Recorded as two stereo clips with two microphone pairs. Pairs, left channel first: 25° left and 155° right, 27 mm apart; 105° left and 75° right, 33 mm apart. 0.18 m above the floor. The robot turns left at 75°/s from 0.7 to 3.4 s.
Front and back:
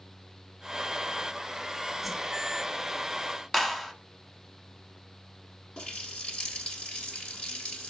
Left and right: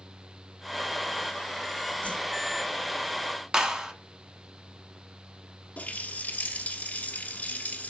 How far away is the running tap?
About 1.5 m.